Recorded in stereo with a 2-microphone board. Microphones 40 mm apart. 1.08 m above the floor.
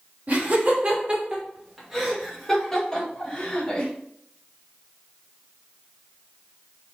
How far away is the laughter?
About 1.3 m.